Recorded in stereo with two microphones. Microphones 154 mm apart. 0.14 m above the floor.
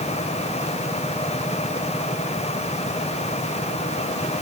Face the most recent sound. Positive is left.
No sound to turn to.